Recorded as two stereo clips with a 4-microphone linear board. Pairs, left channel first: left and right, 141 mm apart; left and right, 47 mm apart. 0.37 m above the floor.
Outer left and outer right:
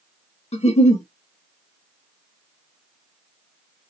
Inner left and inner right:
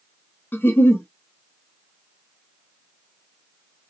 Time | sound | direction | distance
0.5 | a giggle | 50° left (ahead or behind) | 0.6 m